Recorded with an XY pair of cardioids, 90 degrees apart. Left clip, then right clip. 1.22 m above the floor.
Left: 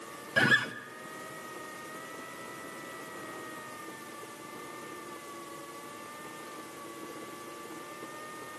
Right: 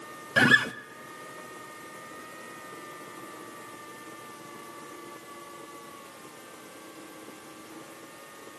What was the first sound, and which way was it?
A guitar, 45° right.